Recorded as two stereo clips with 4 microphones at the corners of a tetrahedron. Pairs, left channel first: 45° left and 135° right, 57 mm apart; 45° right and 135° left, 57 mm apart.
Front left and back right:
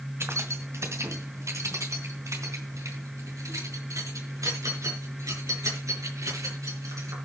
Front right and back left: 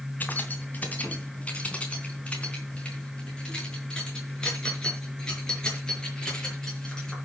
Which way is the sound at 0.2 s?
100° right.